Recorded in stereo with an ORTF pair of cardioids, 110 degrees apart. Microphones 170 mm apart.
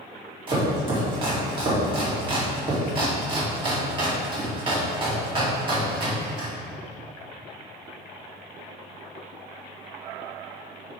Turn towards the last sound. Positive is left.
turn(degrees=-30)